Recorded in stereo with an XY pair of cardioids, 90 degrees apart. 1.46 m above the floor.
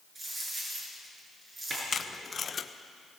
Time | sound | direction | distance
0.1 | a dropped coin | 40° right | 8.5 m
1.9 | tape being pulled | 40° left | 1.2 m